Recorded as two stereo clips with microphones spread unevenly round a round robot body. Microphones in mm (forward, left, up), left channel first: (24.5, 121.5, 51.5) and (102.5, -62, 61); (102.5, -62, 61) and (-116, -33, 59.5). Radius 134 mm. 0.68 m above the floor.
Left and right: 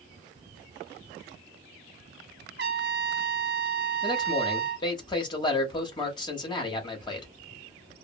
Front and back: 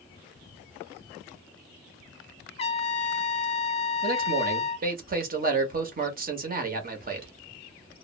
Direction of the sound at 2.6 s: 65° right.